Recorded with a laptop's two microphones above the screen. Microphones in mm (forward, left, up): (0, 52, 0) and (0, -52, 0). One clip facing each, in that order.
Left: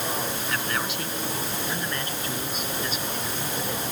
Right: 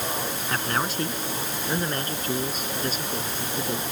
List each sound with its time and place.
0.5 s a man speaking: 35° right (ahead or behind); by 3.8 s 40° right (ahead or behind)